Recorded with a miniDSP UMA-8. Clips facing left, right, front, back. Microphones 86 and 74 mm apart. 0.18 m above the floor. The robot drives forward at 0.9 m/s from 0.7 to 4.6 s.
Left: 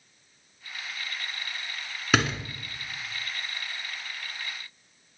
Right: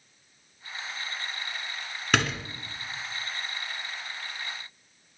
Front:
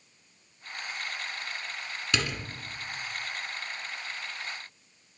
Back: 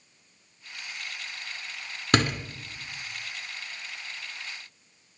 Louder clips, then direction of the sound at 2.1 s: Left 2 dB, back 8 dB; 175° left.